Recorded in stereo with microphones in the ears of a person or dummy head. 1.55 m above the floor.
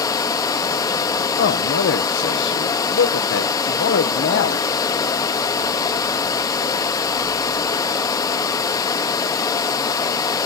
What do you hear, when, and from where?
0.0 s running water: 15° left (ahead or behind), 1.1 m
1.4 s a man speaking: 65° left (ahead or behind), 0.9 m